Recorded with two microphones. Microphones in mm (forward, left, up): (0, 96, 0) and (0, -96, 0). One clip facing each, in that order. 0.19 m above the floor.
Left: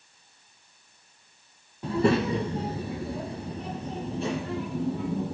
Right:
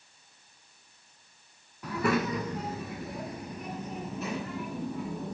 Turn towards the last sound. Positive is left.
turn(degrees=30)  # may be behind; listen again after turning